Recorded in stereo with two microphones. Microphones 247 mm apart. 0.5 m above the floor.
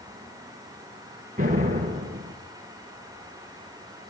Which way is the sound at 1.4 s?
35° right (ahead or behind).